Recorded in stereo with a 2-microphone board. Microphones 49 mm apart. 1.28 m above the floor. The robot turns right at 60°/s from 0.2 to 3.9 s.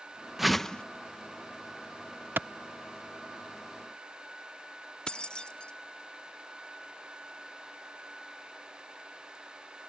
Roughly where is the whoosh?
Centre.